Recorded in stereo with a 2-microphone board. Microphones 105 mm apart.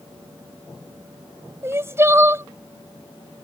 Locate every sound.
1.6 s crying: 25° right (ahead or behind)